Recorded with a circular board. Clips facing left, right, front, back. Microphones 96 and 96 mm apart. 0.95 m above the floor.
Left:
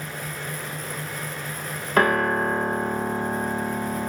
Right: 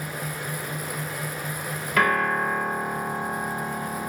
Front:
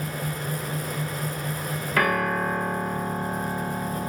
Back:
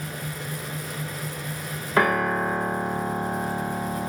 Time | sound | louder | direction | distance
2.0 | a piano | left 2 dB, back 2 dB | 125° left | 0.6 m